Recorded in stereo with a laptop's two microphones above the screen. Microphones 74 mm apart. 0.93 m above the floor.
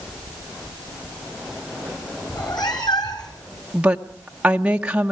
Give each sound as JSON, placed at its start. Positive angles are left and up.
{"t": 2.3, "sound": "a cat meowing", "side_deg": 75, "distance_m": 2.5}
{"t": 3.7, "sound": "a woman speaking", "side_deg": -15, "distance_m": 0.9}